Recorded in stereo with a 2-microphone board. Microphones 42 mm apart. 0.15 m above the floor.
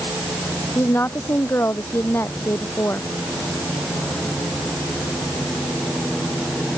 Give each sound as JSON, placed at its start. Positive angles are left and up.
{"t": 0.8, "sound": "a woman speaking", "side_deg": 75}